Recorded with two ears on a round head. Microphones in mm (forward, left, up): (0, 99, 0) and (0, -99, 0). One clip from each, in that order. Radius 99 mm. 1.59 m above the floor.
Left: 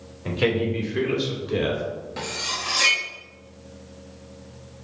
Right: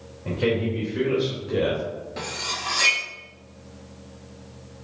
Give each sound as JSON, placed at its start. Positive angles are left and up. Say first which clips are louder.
{"t": 0.2, "sound": "a man speaking", "louder": "left 1 dB", "side_deg": 75, "distance_m": 2.5}
{"t": 2.2, "sound": "cutlery clinking", "louder": "left 1 dB", "side_deg": 10, "distance_m": 1.6}